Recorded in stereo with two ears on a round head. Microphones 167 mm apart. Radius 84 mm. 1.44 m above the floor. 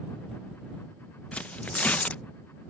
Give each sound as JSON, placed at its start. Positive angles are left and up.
{"t": 1.3, "sound": "tearing paper", "side_deg": 10}